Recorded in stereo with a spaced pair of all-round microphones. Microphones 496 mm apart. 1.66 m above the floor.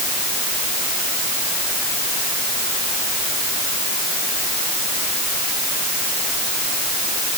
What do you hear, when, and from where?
Only background noise.